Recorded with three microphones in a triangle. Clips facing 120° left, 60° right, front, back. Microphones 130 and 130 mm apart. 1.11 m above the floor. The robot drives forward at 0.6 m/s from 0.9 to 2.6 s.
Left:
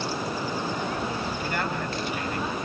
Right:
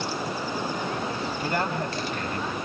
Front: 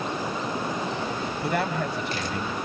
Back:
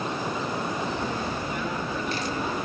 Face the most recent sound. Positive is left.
turn(degrees=-10)